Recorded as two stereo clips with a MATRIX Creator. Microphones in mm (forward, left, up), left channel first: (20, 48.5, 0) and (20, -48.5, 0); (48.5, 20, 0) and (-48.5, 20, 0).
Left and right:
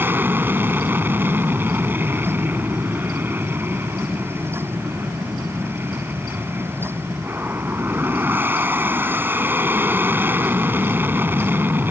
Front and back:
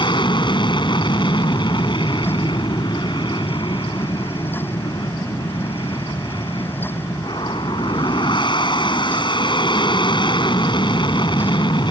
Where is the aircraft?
25° right.